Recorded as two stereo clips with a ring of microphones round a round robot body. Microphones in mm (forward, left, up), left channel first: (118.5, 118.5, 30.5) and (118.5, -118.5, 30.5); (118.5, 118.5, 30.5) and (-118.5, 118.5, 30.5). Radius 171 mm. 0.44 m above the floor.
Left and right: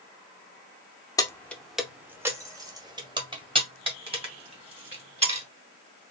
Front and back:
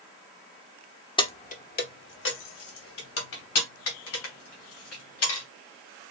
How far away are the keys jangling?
About 0.7 m.